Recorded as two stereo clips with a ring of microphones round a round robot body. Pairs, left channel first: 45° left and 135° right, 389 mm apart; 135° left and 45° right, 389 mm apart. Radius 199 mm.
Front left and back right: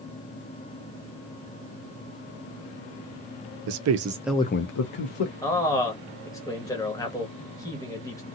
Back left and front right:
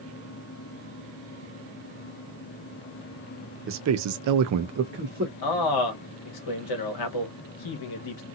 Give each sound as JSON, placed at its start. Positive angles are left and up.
{"t": 3.7, "sound": "a man speaking", "azimuth_deg": -100, "distance_m": 0.7}
{"t": 5.4, "sound": "a man speaking", "azimuth_deg": 125, "distance_m": 1.2}